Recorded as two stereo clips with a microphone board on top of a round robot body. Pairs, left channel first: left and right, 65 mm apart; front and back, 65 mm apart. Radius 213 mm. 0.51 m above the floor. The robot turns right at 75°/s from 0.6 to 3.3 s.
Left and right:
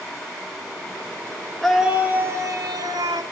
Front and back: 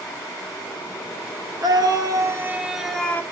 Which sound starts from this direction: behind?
A scream, at 1.6 s.